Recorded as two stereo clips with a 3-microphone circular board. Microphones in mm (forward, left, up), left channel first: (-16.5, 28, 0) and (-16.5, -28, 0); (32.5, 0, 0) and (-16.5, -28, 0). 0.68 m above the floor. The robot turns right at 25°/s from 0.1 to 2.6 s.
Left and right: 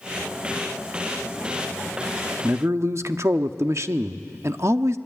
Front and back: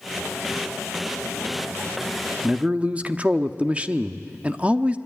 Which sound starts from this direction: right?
A man speaking, at 2.4 s.